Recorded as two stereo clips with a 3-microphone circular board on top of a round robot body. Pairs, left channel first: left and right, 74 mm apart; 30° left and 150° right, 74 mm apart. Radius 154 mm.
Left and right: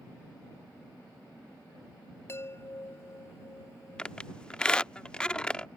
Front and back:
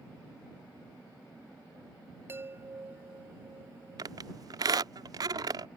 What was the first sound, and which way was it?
A chime, 145° left.